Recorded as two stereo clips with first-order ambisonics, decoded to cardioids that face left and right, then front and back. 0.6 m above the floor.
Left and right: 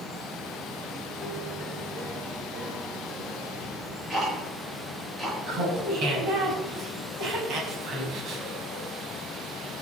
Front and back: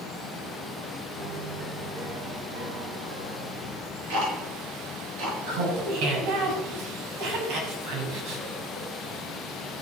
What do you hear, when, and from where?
1.2 s a piano: 165° right, 4.5 m
3.6 s ticking: 170° right, 6 m
5.5 s laughter: 145° right, 5 m